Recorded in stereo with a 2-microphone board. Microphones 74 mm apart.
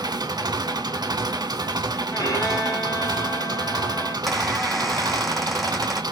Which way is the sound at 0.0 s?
65° right (ahead or behind).